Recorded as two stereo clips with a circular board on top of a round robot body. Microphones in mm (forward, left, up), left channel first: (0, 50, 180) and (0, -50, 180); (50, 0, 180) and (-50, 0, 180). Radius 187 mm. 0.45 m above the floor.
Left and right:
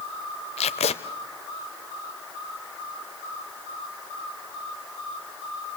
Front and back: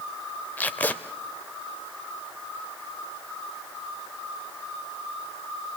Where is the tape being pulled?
75° left, 0.5 m.